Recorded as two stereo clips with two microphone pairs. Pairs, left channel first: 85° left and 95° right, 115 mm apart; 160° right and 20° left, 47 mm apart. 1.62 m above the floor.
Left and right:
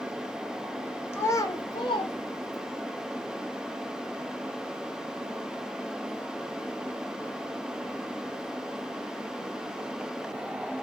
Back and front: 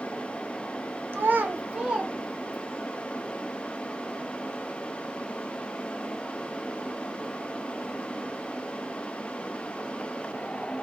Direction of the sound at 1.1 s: 25° left.